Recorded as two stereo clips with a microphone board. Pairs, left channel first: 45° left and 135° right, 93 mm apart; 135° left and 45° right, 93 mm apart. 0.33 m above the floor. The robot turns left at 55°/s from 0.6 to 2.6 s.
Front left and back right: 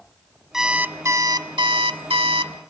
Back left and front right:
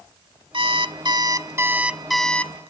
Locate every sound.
0.5 s an alarm clock: 50° right, 0.8 m; by 2.5 s 160° right, 0.8 m